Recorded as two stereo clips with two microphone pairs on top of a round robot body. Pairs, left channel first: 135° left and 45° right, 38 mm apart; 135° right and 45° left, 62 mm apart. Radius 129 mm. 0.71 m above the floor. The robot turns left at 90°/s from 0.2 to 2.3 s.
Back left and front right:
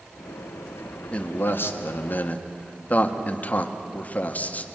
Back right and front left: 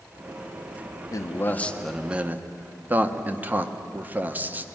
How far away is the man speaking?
About 1.6 m.